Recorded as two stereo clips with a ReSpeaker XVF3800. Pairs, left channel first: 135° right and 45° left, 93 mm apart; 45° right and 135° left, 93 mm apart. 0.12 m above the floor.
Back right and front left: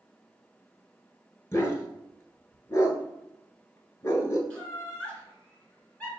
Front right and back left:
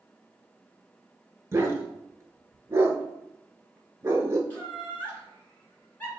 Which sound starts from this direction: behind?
A dog barking, at 1.5 s.